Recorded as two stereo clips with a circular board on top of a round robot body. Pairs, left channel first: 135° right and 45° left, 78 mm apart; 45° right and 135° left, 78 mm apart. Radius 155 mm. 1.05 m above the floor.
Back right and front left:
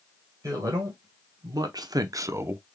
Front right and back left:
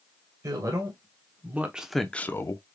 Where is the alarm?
No alarm in this recording.